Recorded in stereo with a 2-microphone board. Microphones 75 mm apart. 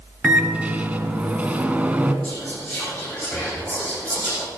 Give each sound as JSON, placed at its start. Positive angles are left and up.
{"t": 0.2, "sound": "a microwave", "side_deg": -20, "distance_m": 0.8}
{"t": 2.2, "sound": "whispering", "side_deg": 15, "distance_m": 3.5}